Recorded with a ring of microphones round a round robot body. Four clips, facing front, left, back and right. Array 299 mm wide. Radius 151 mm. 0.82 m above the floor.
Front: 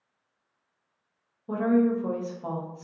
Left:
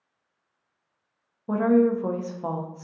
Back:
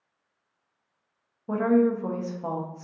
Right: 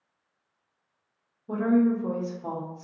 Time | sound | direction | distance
1.5 | a woman speaking | 105° left | 0.6 m